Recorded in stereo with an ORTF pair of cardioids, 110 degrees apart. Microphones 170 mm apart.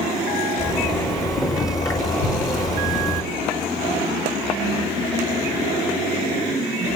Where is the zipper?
20° left, 4.5 m.